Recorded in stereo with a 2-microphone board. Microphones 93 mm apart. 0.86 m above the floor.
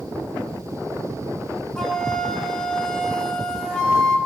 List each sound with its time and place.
1.8 s a flute: 10° left (ahead or behind), 1.2 m